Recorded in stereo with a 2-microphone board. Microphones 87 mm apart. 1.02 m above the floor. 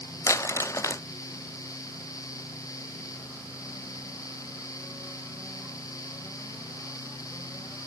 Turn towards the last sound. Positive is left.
turn(degrees=35)  # may be behind; listen again after turning